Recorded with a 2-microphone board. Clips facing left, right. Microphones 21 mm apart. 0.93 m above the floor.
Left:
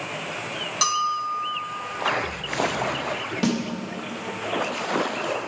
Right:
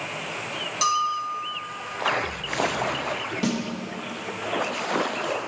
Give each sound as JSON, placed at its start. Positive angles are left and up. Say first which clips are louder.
{"t": 0.8, "sound": "a bell", "louder": "even", "side_deg": 20, "distance_m": 0.8}
{"t": 3.4, "sound": "a snare drum", "louder": "left 3 dB", "side_deg": 25, "distance_m": 1.5}